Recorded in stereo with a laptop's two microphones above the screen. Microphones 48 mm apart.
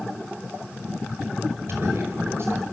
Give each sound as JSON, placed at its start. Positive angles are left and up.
{"t": 1.7, "sound": "a man speaking", "side_deg": -55, "distance_m": 5.0}